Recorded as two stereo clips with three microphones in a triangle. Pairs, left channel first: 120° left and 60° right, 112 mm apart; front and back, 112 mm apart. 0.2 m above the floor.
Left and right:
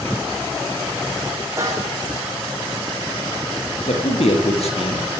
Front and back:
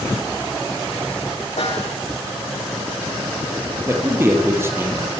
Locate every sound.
1.6 s a snare drum: straight ahead, 8.5 m
3.9 s a man speaking: 115° left, 6 m